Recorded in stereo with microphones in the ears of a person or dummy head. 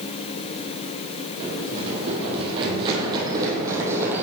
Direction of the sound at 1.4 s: 45° right (ahead or behind).